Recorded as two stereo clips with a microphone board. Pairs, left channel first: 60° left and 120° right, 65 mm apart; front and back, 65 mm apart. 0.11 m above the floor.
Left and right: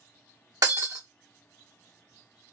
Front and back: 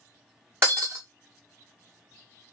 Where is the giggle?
No giggle in this recording.